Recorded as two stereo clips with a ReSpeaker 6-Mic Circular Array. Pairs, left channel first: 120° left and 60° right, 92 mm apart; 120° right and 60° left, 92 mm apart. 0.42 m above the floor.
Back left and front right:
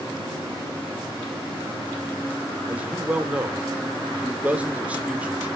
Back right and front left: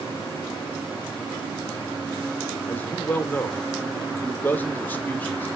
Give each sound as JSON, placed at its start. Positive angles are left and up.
{"t": 2.7, "sound": "a man speaking", "azimuth_deg": -100, "distance_m": 1.1}